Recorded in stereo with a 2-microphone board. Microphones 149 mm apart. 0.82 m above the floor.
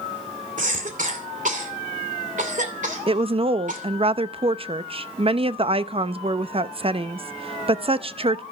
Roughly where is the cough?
Right.